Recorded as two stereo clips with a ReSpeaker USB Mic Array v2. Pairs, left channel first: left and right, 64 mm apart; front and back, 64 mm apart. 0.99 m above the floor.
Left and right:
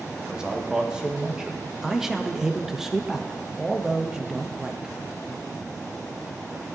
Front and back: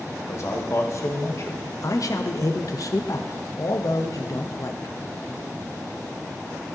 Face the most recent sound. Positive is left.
turn(degrees=-10)